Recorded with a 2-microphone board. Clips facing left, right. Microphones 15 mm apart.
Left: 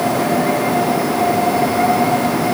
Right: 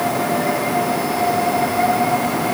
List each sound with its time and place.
Only background noise.